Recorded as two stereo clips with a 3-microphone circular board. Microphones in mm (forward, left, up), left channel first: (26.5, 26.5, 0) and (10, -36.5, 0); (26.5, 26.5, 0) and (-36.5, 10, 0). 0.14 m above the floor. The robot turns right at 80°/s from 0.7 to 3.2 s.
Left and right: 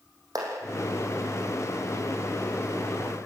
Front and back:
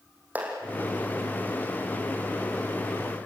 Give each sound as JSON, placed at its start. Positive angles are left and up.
{"t": 0.3, "sound": "a clap", "azimuth_deg": -100, "distance_m": 5.0}